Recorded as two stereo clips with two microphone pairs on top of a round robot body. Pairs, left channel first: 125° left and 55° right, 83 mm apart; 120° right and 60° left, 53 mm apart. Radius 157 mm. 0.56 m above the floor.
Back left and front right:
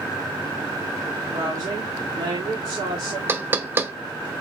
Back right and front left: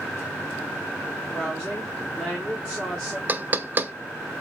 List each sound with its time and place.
1.3 s a woman speaking: 40° right, 1.4 m
3.3 s knocking: 5° left, 0.6 m